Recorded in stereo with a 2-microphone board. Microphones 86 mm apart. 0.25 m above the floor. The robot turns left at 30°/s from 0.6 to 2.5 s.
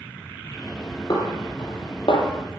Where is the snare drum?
45° left (ahead or behind), 5.5 m; by 2.3 s 80° left, 5.5 m.